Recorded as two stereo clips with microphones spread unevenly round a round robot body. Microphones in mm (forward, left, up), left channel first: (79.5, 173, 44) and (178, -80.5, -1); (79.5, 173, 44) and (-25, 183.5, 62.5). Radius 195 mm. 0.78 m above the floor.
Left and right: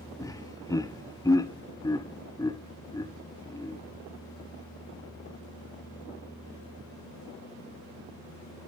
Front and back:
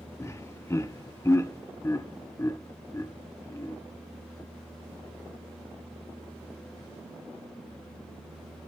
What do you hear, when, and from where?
0.2 s laughter: 25° left, 0.7 m